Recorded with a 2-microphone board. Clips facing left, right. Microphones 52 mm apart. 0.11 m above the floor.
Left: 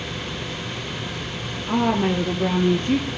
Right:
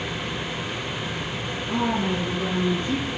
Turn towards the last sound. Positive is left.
turn(degrees=55)  # may be behind; listen again after turning